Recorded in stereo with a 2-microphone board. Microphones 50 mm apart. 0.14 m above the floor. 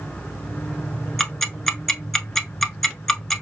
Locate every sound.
1.2 s ticking: 5° left (ahead or behind), 0.6 m